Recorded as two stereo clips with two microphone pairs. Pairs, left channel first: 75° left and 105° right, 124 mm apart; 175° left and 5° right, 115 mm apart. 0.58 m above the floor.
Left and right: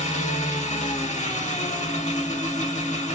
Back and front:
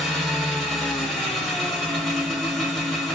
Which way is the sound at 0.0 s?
90° left.